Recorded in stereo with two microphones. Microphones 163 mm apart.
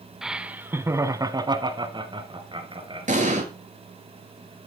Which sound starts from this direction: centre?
Laughter, at 0.2 s.